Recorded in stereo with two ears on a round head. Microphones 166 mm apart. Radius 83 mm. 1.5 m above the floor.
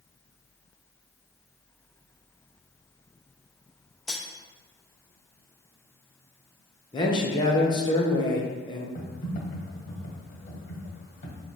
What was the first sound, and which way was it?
Cutlery clinking, centre (ahead or behind).